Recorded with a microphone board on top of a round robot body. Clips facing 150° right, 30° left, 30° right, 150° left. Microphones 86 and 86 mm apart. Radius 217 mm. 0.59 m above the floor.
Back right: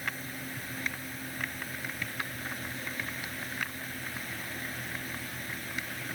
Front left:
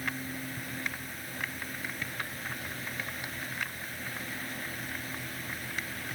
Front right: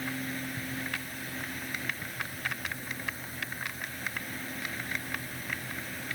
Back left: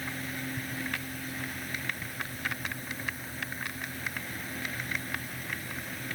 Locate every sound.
Only background noise.